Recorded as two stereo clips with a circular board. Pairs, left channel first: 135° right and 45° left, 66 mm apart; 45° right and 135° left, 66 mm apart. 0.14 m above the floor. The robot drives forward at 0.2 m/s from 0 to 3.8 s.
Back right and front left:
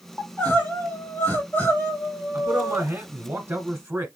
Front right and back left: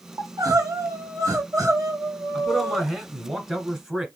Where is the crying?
165° left, 2 m; by 2.9 s 170° left, 2.5 m.